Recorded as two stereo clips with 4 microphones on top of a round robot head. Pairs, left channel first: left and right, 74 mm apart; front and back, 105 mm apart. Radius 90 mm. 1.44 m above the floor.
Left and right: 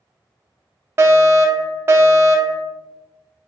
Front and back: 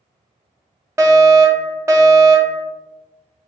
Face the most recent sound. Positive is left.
turn(degrees=-125)